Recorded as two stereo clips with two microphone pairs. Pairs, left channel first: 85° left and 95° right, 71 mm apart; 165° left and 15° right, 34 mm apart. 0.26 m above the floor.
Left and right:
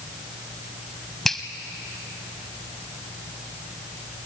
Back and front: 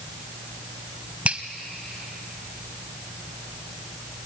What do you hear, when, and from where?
1.2 s a finger snap: straight ahead, 1.1 m